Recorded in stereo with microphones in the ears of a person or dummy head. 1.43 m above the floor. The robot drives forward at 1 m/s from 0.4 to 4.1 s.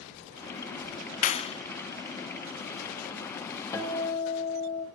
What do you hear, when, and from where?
1.2 s a clap: 35° left (ahead or behind), 0.6 m; by 1.6 s 25° left (ahead or behind), 0.9 m
3.7 s a guitar: 25° left (ahead or behind), 2 m